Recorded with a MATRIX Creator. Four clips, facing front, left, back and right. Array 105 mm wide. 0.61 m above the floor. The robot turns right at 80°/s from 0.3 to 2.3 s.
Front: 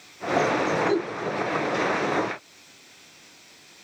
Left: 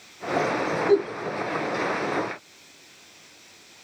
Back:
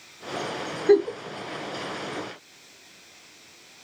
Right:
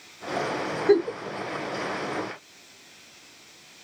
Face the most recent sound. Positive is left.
turn(degrees=-30)